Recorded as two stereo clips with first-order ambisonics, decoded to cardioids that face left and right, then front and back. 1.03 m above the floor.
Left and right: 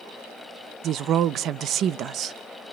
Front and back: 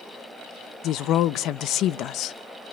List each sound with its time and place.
0.8 s a woman speaking: 40° right, 0.6 m